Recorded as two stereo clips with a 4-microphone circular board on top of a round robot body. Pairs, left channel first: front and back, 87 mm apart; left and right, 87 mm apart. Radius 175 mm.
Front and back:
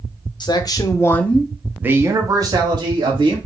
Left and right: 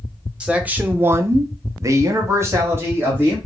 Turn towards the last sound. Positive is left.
turn(degrees=-155)